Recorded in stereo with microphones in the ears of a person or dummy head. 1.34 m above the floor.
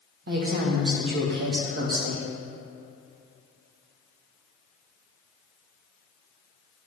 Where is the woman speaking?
60° right (ahead or behind), 1.1 m.